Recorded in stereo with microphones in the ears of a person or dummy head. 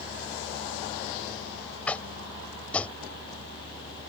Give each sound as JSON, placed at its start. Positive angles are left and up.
{"t": 1.9, "sound": "tapping", "side_deg": 10}